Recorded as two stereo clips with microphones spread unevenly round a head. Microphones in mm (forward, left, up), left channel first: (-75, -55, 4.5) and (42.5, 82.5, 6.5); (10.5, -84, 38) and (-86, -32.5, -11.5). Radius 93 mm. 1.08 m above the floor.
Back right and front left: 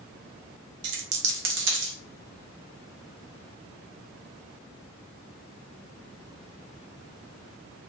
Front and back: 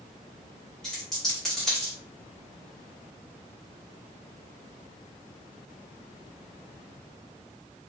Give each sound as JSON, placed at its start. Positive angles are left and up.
{"t": 0.8, "sound": "a dropped coin", "azimuth_deg": 45, "distance_m": 0.7}